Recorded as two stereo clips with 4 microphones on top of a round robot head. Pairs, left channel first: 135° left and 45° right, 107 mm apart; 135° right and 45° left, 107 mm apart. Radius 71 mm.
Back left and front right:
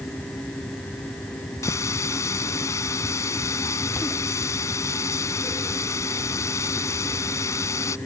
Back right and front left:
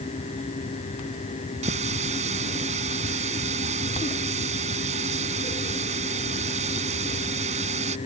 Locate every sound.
1.6 s a running tap: 70° left